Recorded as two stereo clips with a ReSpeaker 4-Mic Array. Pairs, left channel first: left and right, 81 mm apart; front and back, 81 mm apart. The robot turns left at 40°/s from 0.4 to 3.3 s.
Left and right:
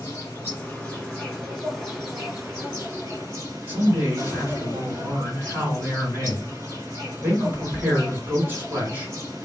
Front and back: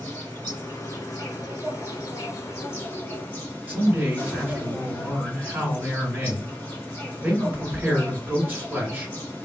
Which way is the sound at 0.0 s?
55° left.